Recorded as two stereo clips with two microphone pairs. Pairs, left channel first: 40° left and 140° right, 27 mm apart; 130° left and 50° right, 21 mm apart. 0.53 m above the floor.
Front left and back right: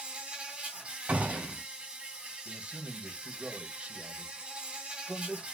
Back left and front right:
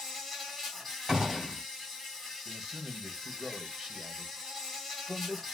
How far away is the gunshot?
About 2.5 m.